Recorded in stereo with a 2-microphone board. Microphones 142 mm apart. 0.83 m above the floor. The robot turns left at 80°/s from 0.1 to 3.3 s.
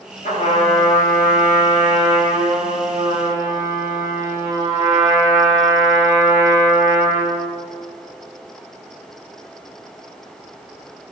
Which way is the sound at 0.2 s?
90° left.